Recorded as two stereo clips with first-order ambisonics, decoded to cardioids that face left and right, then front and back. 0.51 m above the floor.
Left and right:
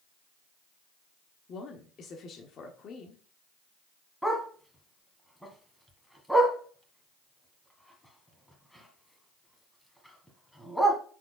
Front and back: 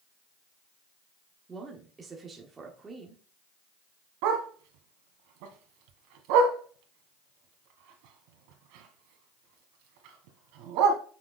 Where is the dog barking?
Straight behind, 1.6 m.